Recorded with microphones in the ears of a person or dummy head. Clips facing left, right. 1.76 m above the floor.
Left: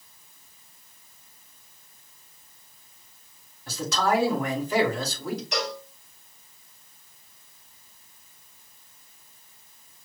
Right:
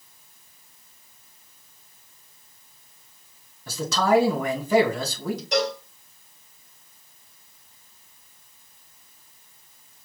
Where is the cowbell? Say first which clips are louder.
Right 7 dB; 35° right (ahead or behind), 1.3 m.